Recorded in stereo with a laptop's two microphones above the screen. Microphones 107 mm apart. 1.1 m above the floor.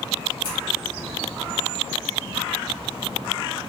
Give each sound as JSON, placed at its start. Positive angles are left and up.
{"t": 0.4, "sound": "scissors", "side_deg": 50, "distance_m": 1.5}